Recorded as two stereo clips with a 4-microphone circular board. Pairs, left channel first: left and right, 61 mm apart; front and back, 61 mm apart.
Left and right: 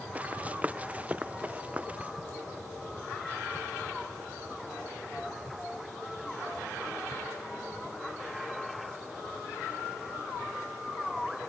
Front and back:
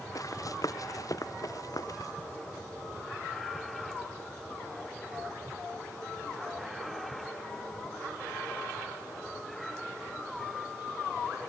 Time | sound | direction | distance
0.1 | running footsteps | 20° right | ?